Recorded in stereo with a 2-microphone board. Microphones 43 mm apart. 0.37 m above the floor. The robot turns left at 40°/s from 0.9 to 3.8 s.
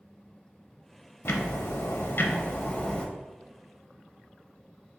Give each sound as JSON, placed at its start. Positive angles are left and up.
{"t": 1.2, "sound": "ticking", "azimuth_deg": 100, "distance_m": 0.5}